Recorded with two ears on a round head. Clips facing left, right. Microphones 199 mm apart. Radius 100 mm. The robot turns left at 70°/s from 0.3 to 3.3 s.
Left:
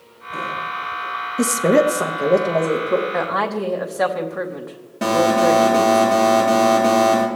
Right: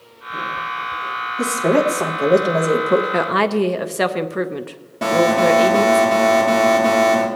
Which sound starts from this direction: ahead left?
A woman speaking, at 1.4 s.